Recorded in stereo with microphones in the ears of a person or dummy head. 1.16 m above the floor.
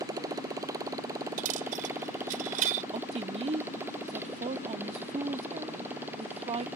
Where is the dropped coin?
45° right (ahead or behind).